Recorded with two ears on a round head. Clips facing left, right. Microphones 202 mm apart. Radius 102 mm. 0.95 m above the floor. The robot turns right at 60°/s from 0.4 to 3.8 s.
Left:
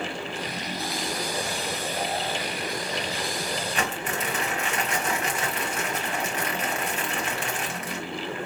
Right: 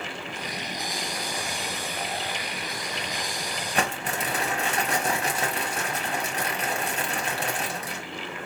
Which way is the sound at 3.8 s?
35° right (ahead or behind).